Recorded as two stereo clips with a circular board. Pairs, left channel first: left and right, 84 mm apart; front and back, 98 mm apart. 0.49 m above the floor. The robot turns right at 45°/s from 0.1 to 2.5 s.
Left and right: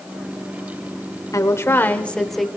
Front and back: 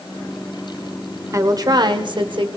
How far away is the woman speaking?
About 1.4 m.